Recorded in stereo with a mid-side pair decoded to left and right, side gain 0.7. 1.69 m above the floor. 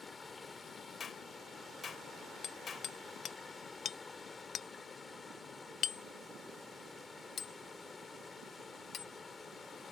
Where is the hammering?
40° left.